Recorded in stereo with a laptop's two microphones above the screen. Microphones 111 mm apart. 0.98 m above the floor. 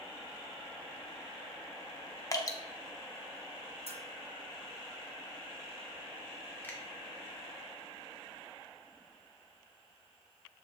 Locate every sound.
2.3 s dripping: 35° left (ahead or behind), 0.8 m
3.9 s a bell: 70° right (ahead or behind), 1.0 m
6.6 s a finger snap: 15° left (ahead or behind), 1.8 m